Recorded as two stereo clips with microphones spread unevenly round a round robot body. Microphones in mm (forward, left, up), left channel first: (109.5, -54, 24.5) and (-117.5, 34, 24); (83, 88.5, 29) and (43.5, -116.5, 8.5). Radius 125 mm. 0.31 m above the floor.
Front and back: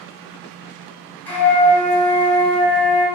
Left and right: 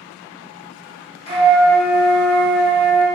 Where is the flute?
55° left, 1.1 m.